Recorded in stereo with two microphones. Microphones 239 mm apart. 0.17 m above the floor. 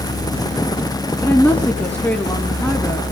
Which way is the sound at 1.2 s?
5° left (ahead or behind).